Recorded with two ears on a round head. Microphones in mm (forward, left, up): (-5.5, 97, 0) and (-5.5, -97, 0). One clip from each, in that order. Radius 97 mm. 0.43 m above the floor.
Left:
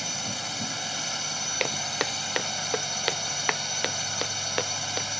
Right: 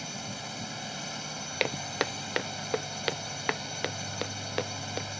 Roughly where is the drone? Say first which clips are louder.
Left 7 dB; left.